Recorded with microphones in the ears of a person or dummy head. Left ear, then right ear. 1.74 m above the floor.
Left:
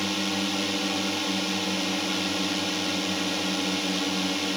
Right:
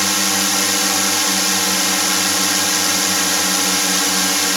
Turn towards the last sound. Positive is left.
turn(degrees=-50)  # may be behind; listen again after turning